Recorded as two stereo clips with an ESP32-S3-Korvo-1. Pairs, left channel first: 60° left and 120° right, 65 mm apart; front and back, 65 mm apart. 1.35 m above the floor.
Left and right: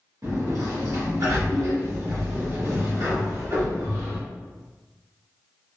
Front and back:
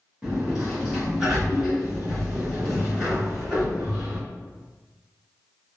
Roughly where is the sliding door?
Right.